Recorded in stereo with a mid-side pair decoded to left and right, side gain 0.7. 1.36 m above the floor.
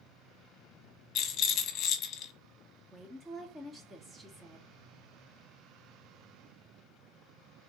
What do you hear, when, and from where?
1.1 s a rattle: 45° left, 1.2 m
2.9 s a woman speaking: 10° right, 1.6 m